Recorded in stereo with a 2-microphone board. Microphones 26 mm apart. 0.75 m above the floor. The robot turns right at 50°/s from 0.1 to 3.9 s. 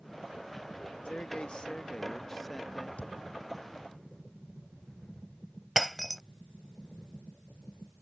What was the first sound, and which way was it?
A man speaking, 100° left.